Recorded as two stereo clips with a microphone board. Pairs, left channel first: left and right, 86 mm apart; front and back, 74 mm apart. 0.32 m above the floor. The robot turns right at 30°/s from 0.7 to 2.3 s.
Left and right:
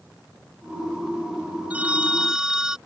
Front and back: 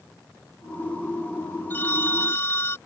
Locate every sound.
1.7 s a phone ringing: 35° right; by 2.8 s 15° right